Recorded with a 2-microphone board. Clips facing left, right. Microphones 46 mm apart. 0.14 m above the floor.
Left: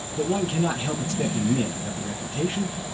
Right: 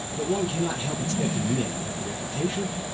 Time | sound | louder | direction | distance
0.1 | a man speaking | left 2 dB | 35° left (ahead or behind) | 1.3 m